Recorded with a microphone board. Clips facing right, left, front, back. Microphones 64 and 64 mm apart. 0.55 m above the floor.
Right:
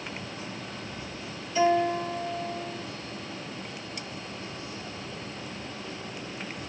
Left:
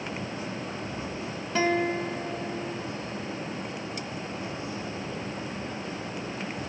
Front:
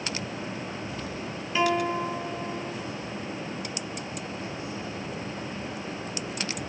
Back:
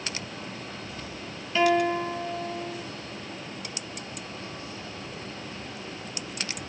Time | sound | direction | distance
1.6 | a guitar | 80° left | 3.5 m